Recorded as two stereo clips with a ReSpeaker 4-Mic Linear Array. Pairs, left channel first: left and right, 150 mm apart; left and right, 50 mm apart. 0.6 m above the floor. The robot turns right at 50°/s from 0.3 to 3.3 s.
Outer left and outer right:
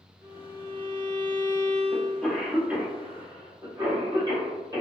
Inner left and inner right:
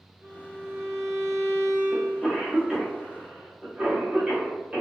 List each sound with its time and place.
0.2 s a violin: 150° right, 1.6 m; by 2.3 s 50° right, 1.6 m
1.9 s a cough: 15° left (ahead or behind), 1.0 m; by 4.8 s 25° right (ahead or behind), 1.0 m